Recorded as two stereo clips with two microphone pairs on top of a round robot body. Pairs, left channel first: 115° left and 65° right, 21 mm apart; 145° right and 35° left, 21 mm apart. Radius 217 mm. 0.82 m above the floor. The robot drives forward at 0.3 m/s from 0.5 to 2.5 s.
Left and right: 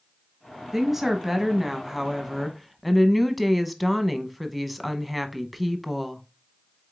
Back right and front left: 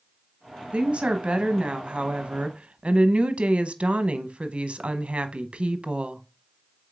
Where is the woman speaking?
10° left, 1.3 m; by 6.2 s 20° left, 0.8 m.